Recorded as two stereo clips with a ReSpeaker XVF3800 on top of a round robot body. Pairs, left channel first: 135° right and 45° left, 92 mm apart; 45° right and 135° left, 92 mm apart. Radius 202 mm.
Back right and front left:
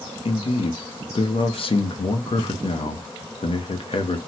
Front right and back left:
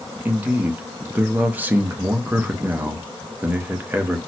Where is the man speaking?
155° right, 0.8 m.